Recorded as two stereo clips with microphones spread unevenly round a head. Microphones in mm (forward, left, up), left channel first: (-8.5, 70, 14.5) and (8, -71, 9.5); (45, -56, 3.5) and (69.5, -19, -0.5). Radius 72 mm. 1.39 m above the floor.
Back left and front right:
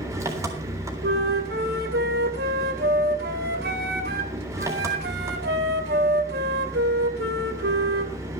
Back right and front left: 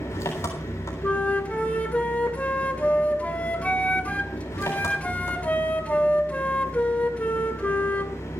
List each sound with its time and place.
0.0 s an engine running: 155° right, 3.5 m
1.0 s a flute: 70° right, 2.5 m